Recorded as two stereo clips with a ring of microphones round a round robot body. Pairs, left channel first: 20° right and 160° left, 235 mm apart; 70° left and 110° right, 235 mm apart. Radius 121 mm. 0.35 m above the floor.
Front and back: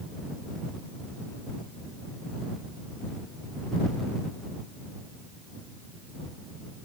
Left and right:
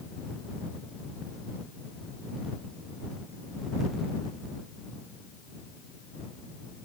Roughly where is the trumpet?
I don't hear a trumpet.